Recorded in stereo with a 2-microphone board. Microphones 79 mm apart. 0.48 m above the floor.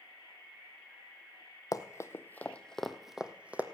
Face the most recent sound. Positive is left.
turn(degrees=-20)  # may be behind; listen again after turning